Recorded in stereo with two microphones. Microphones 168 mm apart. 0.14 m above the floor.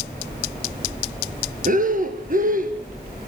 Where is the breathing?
55° right (ahead or behind), 1.7 m.